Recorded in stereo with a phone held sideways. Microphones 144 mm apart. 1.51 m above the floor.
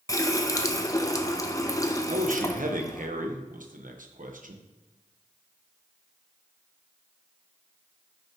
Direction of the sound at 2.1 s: 70° right (ahead or behind).